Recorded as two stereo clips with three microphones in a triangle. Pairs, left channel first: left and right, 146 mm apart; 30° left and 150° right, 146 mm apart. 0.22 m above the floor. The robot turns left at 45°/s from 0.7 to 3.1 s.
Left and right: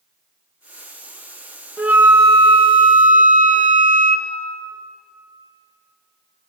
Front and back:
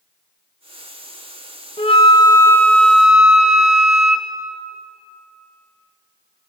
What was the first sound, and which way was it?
A flute, 10° right.